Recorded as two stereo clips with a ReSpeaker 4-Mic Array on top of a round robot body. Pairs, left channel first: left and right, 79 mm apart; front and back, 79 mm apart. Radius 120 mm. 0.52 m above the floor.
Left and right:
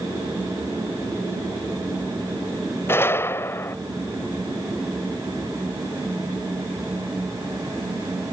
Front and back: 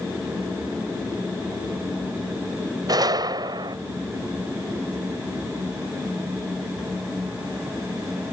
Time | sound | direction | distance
2.9 | a gunshot | 150° left | ?